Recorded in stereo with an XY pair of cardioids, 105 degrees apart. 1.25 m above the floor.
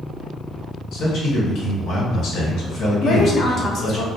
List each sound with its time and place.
0.9 s a man speaking: 70° left, 1.3 m
3.0 s a woman speaking: 55° left, 0.9 m